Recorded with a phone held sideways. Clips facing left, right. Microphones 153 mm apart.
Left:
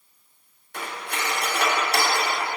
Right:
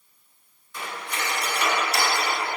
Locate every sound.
0.7 s cutlery clinking: 60° left (ahead or behind), 1.8 m